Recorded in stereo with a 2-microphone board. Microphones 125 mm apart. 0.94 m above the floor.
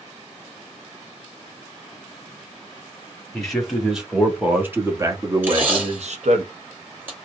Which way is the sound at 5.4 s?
15° right (ahead or behind).